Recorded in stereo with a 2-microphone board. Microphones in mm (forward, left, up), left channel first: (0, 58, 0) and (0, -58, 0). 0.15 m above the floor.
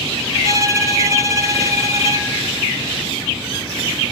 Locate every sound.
0.4 s a violin: 30° right (ahead or behind), 0.6 m